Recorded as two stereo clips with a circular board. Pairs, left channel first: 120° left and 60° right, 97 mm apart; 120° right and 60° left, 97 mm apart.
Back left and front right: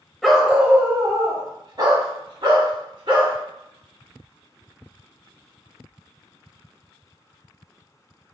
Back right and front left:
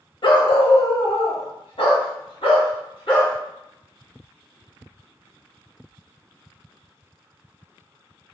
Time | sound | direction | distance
0.2 | a dog barking | 150° right | 0.7 m